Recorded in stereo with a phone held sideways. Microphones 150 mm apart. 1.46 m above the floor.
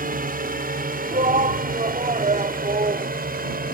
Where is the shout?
55° right (ahead or behind).